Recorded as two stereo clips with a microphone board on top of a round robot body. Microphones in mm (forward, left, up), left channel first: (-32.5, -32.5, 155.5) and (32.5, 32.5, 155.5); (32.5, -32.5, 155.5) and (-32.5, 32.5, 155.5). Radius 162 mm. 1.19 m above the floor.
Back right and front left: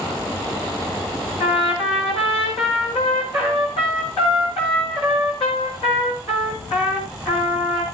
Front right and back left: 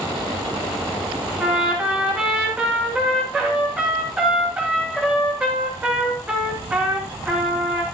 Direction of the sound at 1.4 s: 150° right.